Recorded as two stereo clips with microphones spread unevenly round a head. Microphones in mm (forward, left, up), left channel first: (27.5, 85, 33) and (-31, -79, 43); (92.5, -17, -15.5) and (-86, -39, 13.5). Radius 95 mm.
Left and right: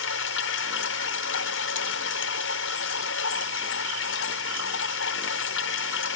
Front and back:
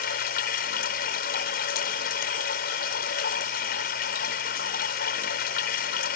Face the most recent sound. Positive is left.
turn(degrees=55)